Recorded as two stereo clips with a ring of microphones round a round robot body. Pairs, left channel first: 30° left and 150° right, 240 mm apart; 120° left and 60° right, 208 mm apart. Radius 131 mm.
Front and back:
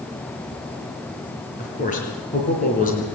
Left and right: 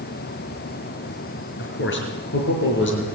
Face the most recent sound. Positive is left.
turn(degrees=90)